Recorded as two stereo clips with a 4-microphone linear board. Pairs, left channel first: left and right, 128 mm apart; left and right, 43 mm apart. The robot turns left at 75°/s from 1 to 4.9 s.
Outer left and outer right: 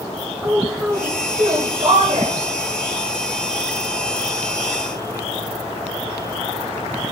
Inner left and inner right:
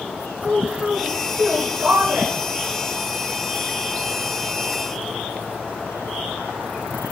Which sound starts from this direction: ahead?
A woman speaking, at 0.4 s.